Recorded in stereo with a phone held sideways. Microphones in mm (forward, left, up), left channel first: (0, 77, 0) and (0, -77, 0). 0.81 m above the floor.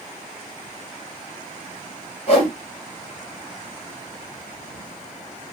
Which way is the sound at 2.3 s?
45° left (ahead or behind).